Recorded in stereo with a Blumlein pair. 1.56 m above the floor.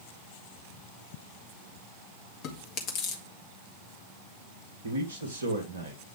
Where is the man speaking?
65° right, 2 m.